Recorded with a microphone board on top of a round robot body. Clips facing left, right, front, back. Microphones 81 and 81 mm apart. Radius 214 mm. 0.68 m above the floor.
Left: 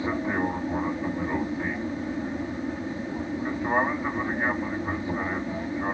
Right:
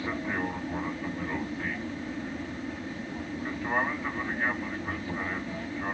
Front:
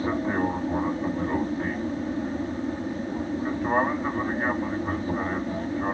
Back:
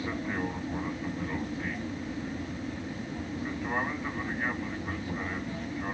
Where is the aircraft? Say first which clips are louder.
Left 5 dB, front 8 dB; 30° left.